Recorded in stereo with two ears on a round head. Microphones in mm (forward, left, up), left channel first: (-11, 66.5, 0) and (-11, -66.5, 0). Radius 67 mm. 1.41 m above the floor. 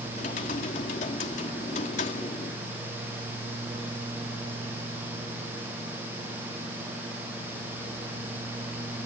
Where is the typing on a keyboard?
45° left (ahead or behind).